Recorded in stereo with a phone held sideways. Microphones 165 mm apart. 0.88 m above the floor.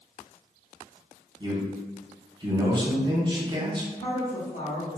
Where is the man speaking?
25° right (ahead or behind), 0.7 m.